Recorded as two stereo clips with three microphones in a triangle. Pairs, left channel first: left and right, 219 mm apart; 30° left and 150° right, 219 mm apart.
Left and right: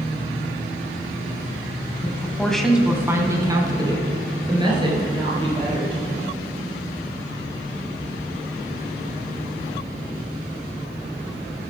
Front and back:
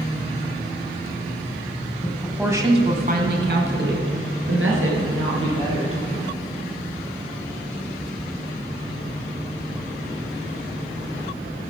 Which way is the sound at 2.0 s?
50° left.